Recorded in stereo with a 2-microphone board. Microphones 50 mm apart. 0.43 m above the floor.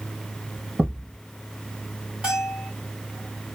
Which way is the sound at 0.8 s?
35° right (ahead or behind).